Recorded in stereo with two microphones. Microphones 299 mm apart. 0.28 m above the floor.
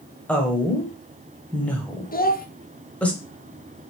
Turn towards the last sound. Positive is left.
turn(degrees=30)  # may be behind; listen again after turning